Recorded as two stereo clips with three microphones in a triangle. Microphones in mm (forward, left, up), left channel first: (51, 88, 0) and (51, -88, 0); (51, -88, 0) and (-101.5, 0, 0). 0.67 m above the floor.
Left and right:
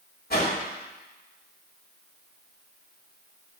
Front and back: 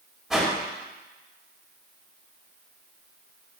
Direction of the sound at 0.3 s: 60° left.